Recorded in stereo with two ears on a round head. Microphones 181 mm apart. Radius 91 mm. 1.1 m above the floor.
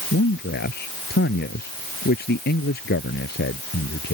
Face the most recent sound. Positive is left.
turn(degrees=55)  # may be behind; listen again after turning